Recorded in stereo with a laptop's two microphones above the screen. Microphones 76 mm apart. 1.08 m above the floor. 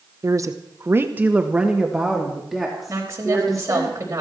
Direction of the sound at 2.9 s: 35° right (ahead or behind).